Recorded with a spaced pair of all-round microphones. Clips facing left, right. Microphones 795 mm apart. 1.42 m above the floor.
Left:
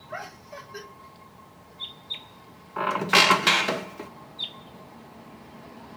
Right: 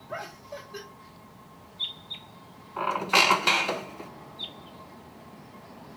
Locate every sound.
0.1 s laughter: 60° right (ahead or behind), 2.5 m
2.8 s a squeak: 55° left (ahead or behind), 0.6 m